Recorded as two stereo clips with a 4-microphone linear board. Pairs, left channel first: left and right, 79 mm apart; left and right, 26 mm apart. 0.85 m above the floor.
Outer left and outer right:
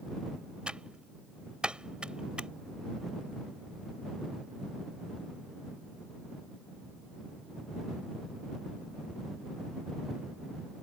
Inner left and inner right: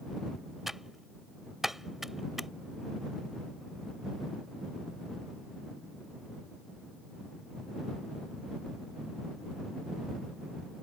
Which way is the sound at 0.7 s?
10° right (ahead or behind).